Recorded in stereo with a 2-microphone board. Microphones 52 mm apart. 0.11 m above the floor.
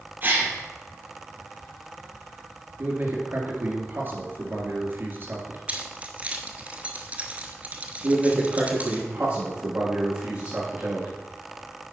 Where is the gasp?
35° right (ahead or behind), 2 m.